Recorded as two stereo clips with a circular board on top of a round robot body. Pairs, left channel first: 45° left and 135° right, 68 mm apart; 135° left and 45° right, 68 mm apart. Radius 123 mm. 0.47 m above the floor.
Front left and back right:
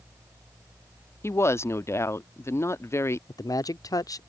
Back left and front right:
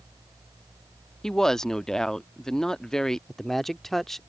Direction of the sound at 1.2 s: 55° left.